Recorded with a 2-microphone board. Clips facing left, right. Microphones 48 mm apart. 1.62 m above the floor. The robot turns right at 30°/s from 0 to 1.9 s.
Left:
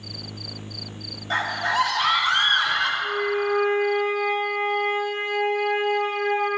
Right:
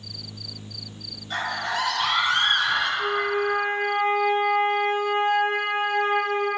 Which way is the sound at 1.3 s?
75° left (ahead or behind).